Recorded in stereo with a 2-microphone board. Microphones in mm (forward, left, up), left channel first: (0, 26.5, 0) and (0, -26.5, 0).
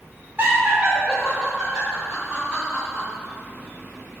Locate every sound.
0.4 s laughter: 40° right (ahead or behind), 1.1 m; by 3.0 s 10° left (ahead or behind), 4.5 m